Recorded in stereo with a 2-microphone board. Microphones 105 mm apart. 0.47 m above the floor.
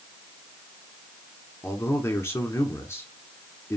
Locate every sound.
1.6 s a man speaking: 25° left (ahead or behind), 1.3 m